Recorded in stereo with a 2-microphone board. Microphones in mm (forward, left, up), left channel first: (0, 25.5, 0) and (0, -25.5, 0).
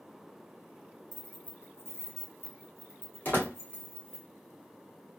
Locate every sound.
1.1 s keys jangling: 20° left (ahead or behind), 0.6 m; by 4.2 s 40° left (ahead or behind), 1.4 m
3.2 s a door slam: 40° left (ahead or behind), 1.4 m